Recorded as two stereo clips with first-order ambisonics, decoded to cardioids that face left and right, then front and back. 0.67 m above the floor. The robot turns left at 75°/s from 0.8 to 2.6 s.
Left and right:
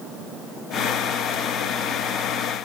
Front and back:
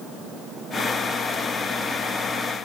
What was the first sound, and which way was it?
Only background noise.